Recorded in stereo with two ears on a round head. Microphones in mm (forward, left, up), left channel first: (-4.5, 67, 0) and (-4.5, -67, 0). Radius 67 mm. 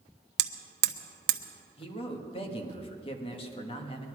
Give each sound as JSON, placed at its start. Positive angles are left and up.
{"t": 0.4, "sound": "hammering", "side_deg": -75, "distance_m": 0.9}
{"t": 1.8, "sound": "a man speaking", "side_deg": 40, "distance_m": 1.6}